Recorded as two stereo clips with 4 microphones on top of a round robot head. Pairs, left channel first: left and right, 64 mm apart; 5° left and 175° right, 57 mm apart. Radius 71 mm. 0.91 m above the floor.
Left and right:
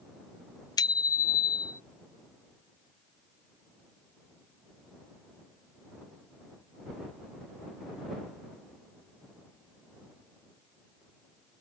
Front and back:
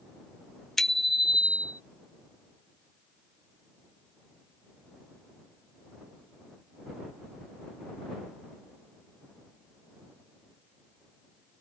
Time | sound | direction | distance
0.8 | a bicycle bell | 90° left | ?